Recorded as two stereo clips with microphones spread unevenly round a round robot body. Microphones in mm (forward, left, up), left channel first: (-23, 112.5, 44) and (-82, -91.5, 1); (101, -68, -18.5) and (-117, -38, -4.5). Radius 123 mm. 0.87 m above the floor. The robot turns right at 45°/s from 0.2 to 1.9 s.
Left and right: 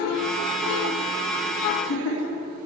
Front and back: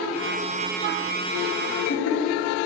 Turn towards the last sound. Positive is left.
turn(degrees=40)